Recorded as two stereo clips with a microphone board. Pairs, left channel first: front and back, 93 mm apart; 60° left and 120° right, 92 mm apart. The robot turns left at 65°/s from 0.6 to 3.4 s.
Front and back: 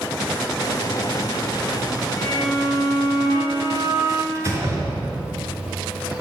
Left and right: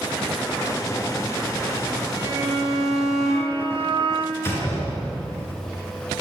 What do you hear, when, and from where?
2.2 s a violin: 55° right, 6.5 m; by 4.2 s 135° right, 6.5 m
4.3 s a door slam: 120° left, 5 m